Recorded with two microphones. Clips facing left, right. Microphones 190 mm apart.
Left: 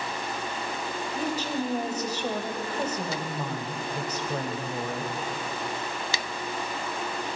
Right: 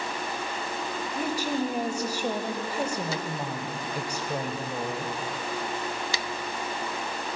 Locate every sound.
1.1 s a woman speaking: 10° right (ahead or behind), 1.0 m